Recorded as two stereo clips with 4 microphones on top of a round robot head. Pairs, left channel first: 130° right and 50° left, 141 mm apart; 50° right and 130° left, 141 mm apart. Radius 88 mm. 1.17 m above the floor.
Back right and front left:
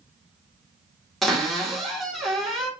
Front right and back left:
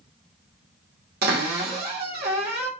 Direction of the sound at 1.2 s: 140° left.